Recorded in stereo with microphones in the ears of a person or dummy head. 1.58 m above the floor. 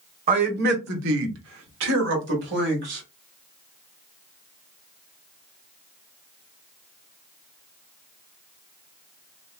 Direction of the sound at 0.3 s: 40° right (ahead or behind).